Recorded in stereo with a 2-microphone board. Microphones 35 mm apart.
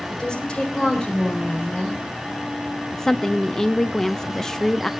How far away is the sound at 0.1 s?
About 4 m.